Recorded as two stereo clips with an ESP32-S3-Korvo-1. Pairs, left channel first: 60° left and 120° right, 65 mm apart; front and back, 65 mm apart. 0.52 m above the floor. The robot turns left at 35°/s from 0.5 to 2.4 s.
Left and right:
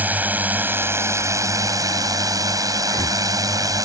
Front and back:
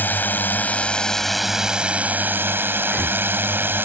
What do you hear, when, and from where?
0.0 s a drone: 60° right; by 3.9 s 125° right
2.8 s breathing: 70° left